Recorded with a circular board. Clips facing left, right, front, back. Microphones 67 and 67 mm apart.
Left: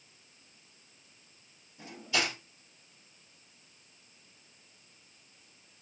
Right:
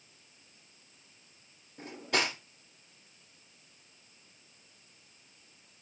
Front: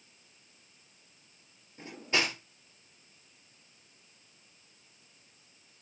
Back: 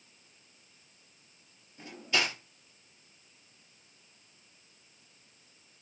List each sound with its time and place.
1.8 s cutlery clinking: 65° right, 4 m